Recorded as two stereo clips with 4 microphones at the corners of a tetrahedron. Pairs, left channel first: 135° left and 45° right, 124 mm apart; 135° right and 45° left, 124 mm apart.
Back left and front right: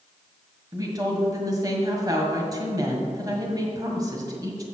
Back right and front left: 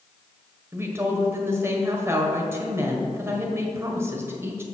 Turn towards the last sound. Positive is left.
turn(degrees=-10)